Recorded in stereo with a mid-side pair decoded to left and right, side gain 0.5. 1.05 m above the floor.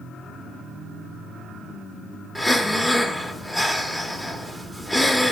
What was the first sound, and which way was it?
Breathing, 10° left.